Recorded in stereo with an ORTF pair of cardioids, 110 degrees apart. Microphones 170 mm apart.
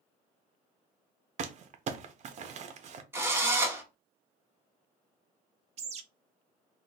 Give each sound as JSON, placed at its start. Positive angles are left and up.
{"t": 1.4, "sound": "crumpling", "azimuth_deg": -45, "distance_m": 0.6}
{"t": 3.1, "sound": "a drill", "azimuth_deg": -15, "distance_m": 1.1}
{"t": 5.8, "sound": "a bird", "azimuth_deg": -40, "distance_m": 0.6}